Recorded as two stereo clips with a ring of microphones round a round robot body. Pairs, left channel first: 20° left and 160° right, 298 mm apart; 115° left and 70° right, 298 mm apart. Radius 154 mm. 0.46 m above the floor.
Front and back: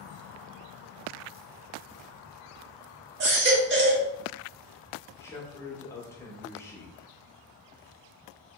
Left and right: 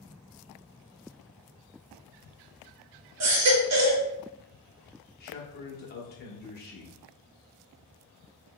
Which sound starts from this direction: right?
A baby crying, at 3.2 s.